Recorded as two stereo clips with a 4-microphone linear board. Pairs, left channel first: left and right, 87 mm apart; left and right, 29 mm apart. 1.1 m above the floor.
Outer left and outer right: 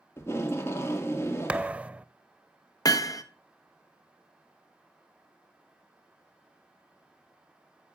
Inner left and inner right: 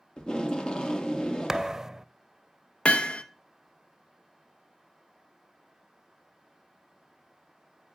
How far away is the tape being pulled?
About 1.8 m.